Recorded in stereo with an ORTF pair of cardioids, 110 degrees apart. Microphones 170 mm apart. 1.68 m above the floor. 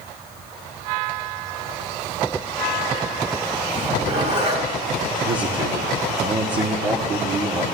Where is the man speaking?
45° right, 1.5 m.